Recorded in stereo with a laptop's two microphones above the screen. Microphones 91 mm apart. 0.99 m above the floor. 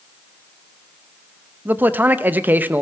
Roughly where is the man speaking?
Centre.